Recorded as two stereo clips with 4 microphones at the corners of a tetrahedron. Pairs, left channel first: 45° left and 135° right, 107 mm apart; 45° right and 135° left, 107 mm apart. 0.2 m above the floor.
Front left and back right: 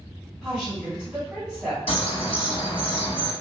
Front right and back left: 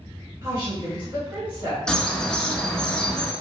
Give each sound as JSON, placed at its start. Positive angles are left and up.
{"t": 0.4, "sound": "a woman speaking", "azimuth_deg": 155, "distance_m": 1.7}
{"t": 1.9, "sound": "a bird", "azimuth_deg": 35, "distance_m": 0.7}